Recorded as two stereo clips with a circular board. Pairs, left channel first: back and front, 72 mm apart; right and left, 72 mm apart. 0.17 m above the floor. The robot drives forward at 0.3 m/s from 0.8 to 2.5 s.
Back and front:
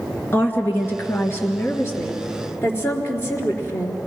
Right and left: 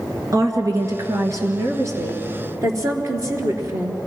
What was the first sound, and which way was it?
A woman speaking, 125° left.